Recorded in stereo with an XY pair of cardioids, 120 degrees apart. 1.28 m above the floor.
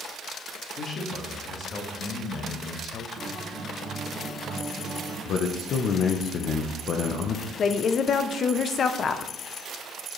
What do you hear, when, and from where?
0.8 s a man speaking: 45° left, 1.9 m; by 3.1 s 60° left, 0.7 m
3.2 s a guitar: 15° left, 2.5 m
5.2 s a man speaking: 55° left, 0.7 m
7.6 s a woman speaking: 45° left, 0.5 m